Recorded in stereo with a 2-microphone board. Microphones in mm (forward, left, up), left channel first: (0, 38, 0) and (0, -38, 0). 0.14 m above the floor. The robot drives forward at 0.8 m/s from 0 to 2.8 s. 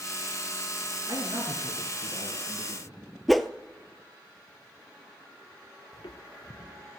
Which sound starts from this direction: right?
A man speaking, at 1.1 s.